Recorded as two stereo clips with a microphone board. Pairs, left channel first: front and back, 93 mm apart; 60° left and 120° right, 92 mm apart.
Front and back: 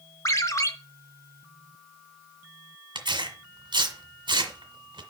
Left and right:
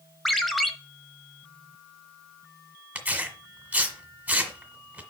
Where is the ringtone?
30° right, 1.1 m.